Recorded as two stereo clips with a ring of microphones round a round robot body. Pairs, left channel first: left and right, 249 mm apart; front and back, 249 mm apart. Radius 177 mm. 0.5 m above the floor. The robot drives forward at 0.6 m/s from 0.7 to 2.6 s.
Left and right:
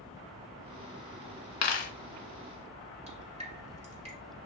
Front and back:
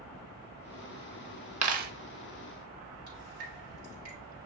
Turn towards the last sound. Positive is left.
turn(degrees=-155)